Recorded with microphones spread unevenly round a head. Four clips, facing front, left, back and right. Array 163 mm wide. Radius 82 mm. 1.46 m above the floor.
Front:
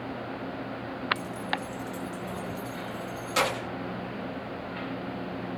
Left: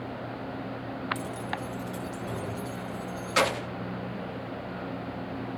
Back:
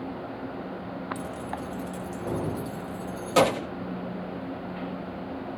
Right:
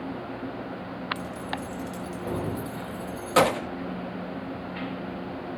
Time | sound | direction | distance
1.1 | keys jangling | 155° left | 0.6 m